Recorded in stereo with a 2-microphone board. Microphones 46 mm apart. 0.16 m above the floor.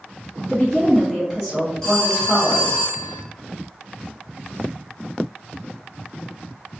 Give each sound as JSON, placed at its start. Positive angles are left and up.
{"t": 0.5, "sound": "a woman speaking", "side_deg": 10, "distance_m": 1.7}
{"t": 1.8, "sound": "a phone ringing", "side_deg": 10, "distance_m": 1.7}